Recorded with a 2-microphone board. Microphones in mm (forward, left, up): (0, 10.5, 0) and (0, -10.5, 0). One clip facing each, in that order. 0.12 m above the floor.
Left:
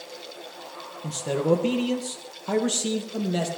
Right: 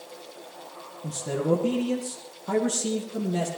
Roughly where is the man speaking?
Left.